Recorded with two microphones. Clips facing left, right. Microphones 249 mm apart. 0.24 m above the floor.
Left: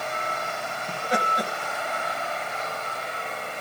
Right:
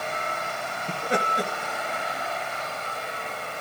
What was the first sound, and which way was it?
Laughter, 30° right (ahead or behind).